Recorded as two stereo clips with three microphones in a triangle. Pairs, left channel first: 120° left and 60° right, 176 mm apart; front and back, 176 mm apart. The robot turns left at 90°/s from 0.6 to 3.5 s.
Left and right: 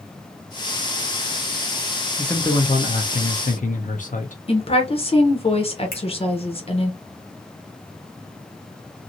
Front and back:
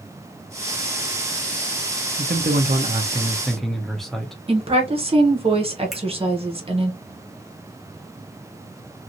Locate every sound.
2.2 s a man speaking: 150° right, 0.7 m; by 4.4 s 90° left, 0.7 m
4.5 s a woman speaking: 150° left, 0.8 m
5.9 s a finger snap: 90° left, 1.2 m